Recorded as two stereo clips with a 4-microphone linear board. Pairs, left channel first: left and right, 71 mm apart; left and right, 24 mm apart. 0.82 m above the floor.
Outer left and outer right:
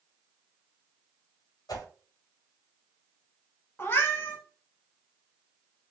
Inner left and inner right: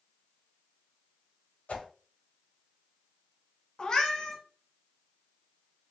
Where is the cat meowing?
30° left (ahead or behind), 1.1 m.